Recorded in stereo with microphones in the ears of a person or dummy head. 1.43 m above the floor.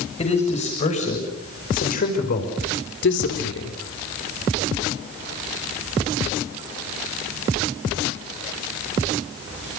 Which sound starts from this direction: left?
A man speaking, at 0.2 s.